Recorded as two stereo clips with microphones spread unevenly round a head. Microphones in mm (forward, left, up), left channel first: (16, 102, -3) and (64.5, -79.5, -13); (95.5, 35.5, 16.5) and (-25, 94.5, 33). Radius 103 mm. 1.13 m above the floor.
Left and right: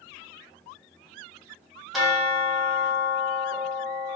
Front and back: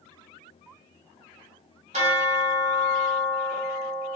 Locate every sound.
1.9 s a bell: 165° right, 0.6 m